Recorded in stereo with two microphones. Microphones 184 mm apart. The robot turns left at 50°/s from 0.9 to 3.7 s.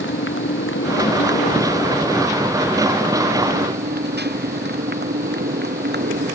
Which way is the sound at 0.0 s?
85° left.